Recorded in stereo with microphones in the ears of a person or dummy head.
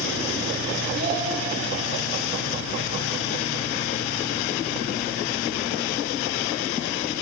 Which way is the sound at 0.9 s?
40° right (ahead or behind).